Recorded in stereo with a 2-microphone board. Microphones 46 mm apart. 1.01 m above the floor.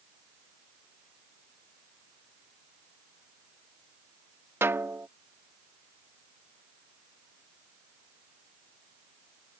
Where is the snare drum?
65° right (ahead or behind).